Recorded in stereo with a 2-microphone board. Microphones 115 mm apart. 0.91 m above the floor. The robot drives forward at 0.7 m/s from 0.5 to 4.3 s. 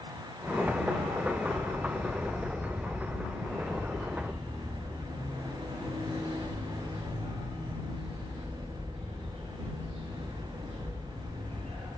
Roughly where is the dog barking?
Right.